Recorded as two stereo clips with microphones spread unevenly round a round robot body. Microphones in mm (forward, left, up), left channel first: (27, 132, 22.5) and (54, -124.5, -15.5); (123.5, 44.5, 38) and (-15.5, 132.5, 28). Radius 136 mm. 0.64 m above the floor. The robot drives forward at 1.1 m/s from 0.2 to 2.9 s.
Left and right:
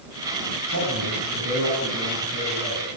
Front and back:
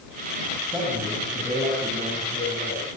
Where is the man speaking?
125° right, 5.5 m; by 2.9 s 140° right, 7.5 m.